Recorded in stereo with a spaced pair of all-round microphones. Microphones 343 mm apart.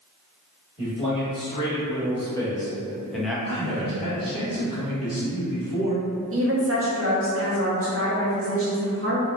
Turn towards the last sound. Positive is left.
turn(degrees=-40)  # may be behind; listen again after turning